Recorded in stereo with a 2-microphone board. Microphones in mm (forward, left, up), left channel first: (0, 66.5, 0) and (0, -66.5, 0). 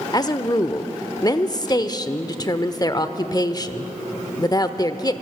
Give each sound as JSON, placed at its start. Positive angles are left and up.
{"t": 0.1, "sound": "a woman speaking", "side_deg": 30, "distance_m": 0.9}